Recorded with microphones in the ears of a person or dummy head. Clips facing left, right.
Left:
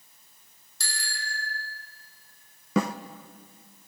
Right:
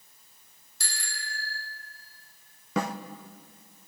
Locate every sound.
0.8 s a bicycle bell: 90° left, 4 m
2.8 s a snare drum: 70° left (ahead or behind), 0.6 m